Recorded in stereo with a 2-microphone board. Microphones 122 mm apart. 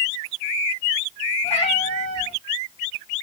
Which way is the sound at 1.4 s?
60° left (ahead or behind).